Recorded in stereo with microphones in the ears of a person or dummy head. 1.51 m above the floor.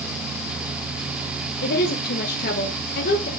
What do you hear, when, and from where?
1.6 s a woman speaking: 50° left (ahead or behind), 1.4 m